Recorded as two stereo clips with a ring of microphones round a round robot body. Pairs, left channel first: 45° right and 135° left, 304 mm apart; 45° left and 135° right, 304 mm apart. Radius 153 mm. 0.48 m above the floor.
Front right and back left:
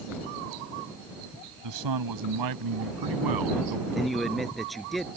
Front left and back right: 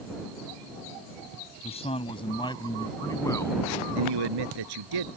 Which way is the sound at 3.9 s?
135° right.